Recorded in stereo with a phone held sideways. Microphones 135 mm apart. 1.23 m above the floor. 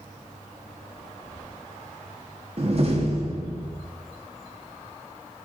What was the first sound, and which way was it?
A door slam, 50° right (ahead or behind).